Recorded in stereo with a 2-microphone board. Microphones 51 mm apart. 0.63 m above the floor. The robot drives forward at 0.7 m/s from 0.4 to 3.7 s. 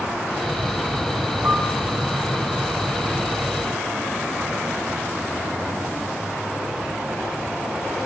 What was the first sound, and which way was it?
A piano, 60° right (ahead or behind).